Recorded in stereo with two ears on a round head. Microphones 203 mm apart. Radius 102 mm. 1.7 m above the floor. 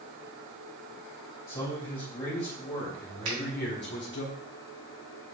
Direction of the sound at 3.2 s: 70° right (ahead or behind).